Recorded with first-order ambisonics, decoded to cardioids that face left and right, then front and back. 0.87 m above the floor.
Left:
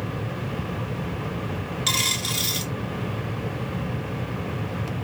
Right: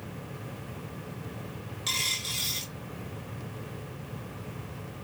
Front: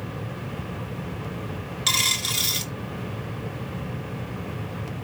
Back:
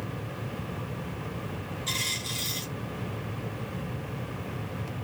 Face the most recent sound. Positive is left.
turn(degrees=25)